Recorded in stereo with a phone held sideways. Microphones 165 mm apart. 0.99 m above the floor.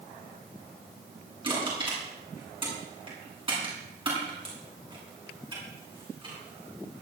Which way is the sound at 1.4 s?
30° right (ahead or behind).